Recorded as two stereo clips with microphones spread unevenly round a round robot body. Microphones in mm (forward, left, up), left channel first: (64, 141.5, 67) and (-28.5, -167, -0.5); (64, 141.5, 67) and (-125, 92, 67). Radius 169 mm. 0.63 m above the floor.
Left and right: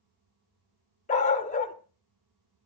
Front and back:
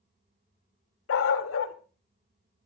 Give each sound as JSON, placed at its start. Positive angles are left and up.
{"t": 1.1, "sound": "a dog barking", "azimuth_deg": 5, "distance_m": 0.8}